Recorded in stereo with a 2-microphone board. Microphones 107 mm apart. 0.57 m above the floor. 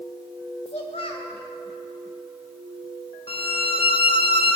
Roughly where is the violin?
Left.